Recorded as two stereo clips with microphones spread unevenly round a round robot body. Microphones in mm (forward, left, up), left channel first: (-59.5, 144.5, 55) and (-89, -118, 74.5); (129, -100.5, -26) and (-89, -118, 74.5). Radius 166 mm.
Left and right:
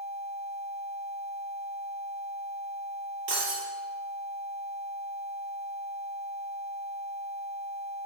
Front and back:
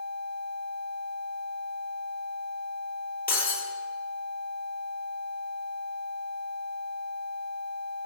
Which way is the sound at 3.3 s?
45° right.